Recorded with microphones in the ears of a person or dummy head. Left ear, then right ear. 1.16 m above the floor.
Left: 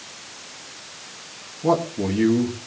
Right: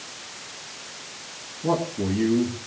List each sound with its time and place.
1.6 s a man speaking: 50° left (ahead or behind), 1.5 m